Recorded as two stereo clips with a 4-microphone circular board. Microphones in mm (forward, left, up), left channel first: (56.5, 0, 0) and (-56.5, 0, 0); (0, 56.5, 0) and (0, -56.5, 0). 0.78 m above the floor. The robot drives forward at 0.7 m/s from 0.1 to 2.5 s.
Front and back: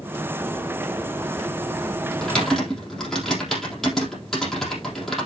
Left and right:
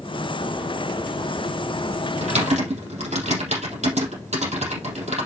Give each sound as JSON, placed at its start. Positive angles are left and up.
{"t": 2.2, "sound": "typing on a keyboard", "azimuth_deg": -85, "distance_m": 4.0}